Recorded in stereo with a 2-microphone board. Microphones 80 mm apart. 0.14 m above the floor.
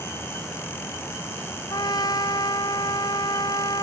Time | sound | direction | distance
1.7 | a trumpet | 55° left (ahead or behind) | ?